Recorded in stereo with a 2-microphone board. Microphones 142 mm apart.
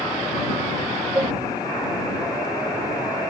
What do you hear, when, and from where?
1.1 s dishes clattering: 15° right (ahead or behind)